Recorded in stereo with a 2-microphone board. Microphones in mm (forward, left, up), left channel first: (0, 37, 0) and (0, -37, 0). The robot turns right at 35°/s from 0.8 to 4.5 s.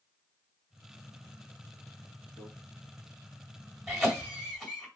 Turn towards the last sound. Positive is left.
turn(degrees=10)  # may be behind; listen again after turning